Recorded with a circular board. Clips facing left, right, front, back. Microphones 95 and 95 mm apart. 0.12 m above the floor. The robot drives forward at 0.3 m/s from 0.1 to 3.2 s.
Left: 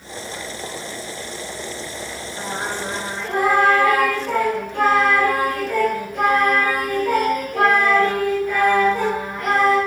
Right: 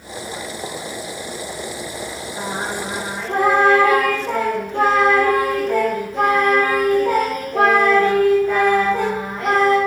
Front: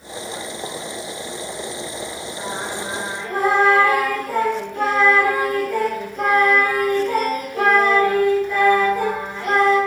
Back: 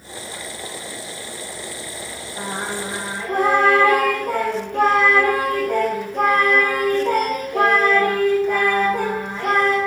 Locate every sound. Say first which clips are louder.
2.4 s singing: right 1 dB, back 2 dB; 150° right, 7.5 m